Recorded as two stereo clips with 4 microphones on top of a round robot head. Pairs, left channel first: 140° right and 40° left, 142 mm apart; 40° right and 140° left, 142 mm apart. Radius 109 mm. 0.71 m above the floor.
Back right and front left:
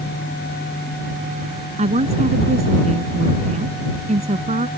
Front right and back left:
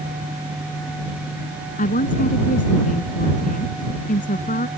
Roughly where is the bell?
No bell in this recording.